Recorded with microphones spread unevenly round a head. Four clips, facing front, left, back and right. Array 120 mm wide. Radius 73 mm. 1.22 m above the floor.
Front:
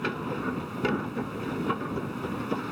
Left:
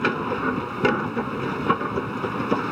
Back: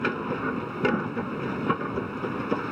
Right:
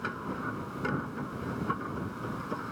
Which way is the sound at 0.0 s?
110° left.